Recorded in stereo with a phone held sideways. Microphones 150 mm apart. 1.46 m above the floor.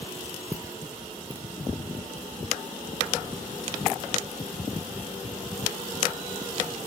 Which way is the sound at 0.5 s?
20° right (ahead or behind).